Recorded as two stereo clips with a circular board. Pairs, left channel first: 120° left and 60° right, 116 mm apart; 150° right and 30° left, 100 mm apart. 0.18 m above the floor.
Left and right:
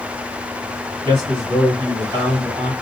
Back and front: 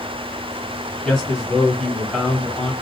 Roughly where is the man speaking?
Right.